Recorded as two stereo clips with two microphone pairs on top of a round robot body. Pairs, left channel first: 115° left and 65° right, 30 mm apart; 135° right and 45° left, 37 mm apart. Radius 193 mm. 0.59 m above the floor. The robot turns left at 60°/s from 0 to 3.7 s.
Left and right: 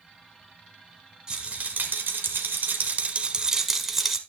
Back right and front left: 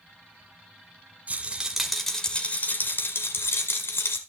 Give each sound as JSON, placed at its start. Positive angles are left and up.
{"t": 1.3, "sound": "a rattle", "azimuth_deg": -5, "distance_m": 1.0}